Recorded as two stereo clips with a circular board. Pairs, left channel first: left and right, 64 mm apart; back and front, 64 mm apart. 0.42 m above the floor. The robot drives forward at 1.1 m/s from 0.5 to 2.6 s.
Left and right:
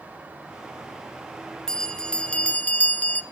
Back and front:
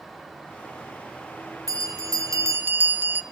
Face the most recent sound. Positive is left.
turn(degrees=35)